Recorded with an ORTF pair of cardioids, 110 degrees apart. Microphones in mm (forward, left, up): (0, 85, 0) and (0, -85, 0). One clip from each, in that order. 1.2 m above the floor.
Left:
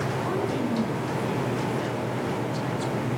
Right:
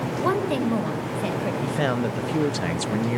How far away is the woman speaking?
About 4 m.